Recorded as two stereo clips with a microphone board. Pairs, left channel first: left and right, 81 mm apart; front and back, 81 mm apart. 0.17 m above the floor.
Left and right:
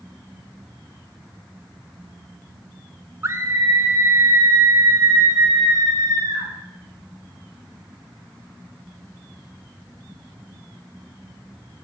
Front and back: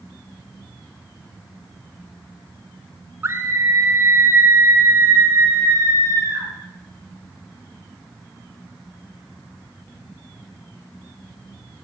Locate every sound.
3.2 s a scream: 135° right, 1.9 m; by 6.5 s 130° right, 4.5 m